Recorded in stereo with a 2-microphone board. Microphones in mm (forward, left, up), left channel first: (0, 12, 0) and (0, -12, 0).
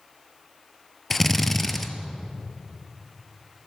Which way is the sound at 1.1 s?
10° left (ahead or behind).